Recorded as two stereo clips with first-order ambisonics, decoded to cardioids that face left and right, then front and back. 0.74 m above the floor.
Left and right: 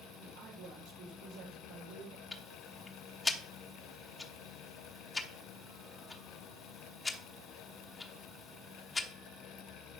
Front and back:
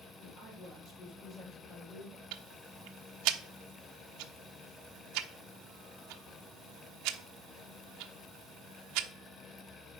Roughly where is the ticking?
Behind.